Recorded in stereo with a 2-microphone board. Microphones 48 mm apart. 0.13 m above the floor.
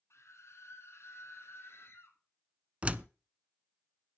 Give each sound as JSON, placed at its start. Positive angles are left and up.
{"t": 0.1, "sound": "a scream", "side_deg": 65, "distance_m": 5.5}
{"t": 2.8, "sound": "a door slam", "side_deg": -25, "distance_m": 0.9}